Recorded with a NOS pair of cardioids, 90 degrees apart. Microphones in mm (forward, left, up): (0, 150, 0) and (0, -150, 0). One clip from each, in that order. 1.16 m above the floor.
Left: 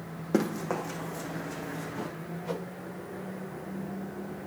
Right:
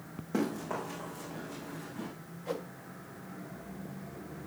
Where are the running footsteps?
65° left, 3.5 m; by 2.1 s 80° left, 3.5 m.